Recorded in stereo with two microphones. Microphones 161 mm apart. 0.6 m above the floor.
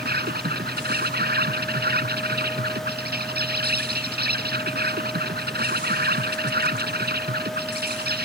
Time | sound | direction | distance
0.0 | an insect | 85° right | ?